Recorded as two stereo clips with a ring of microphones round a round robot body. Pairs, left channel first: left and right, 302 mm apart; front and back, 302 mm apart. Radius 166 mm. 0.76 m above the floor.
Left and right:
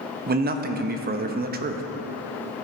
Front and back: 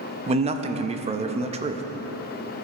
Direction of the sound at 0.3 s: 125° right.